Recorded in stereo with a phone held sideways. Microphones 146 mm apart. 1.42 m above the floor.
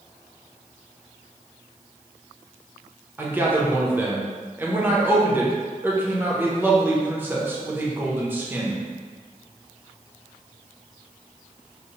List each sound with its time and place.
3.2 s a man speaking: 15° right (ahead or behind), 0.6 m